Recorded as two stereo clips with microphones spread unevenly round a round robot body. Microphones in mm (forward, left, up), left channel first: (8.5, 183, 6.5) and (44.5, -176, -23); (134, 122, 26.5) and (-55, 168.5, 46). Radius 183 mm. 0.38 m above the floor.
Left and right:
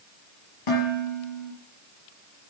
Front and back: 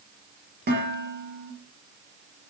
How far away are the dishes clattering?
About 7 m.